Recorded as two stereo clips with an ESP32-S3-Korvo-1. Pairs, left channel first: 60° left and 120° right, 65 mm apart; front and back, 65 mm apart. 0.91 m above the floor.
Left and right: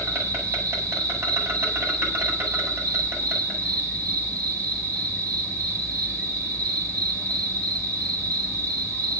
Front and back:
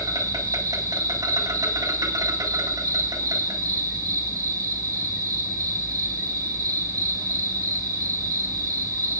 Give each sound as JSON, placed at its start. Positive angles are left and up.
{"t": 0.0, "sound": "an insect", "azimuth_deg": -170, "distance_m": 9.0}